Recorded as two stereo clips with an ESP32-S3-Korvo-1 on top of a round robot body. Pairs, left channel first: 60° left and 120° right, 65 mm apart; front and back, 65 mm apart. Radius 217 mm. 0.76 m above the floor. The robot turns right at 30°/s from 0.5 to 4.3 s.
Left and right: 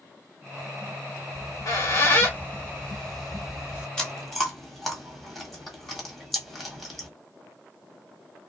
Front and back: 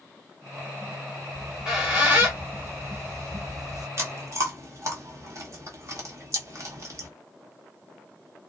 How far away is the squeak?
About 1.8 m.